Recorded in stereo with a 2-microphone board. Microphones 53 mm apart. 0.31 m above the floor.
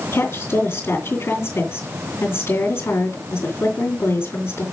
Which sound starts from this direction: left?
A woman speaking, at 0.1 s.